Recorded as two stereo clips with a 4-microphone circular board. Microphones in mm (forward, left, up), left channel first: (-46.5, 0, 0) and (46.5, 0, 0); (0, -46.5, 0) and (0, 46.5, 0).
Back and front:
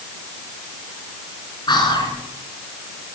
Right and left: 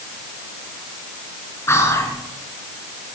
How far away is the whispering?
About 3.5 m.